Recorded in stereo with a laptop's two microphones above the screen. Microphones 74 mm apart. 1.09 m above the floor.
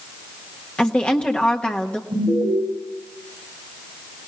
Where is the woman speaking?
15° left (ahead or behind), 1.3 m.